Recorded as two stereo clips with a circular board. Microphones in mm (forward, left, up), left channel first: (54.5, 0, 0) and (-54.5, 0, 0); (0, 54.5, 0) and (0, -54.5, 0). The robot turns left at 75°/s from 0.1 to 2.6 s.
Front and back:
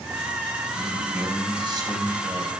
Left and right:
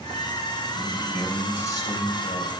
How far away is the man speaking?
About 2.5 m.